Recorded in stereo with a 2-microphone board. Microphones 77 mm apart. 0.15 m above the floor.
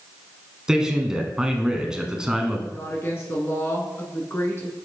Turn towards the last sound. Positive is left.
turn(degrees=35)  # may be behind; listen again after turning